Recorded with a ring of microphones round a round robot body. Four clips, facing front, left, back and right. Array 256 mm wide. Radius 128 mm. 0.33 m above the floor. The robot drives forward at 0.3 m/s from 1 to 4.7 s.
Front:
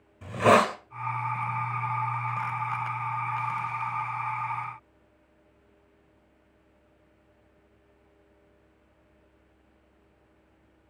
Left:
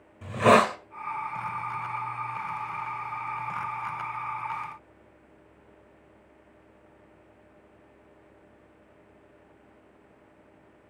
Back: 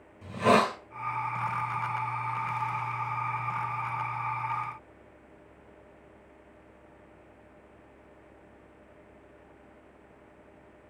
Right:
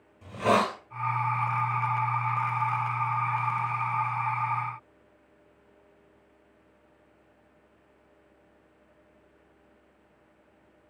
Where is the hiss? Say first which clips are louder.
Left 5 dB, front 3 dB; 45° left, 1.9 m.